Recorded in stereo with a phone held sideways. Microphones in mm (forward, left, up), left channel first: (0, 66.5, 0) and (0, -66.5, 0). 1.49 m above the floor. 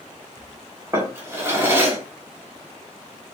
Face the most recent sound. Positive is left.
turn(degrees=-20)  # may be behind; listen again after turning